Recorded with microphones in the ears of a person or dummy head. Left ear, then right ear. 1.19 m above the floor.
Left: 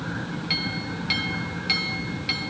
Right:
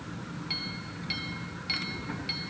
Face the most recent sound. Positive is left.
turn(degrees=5)  # may be behind; listen again after turning